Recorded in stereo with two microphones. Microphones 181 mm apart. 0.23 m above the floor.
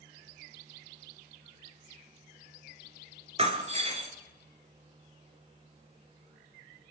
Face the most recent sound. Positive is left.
turn(degrees=-35)  # may be behind; listen again after turning